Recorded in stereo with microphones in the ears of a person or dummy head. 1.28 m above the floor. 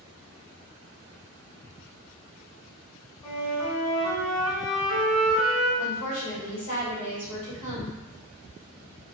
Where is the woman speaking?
45° left (ahead or behind), 1.3 m.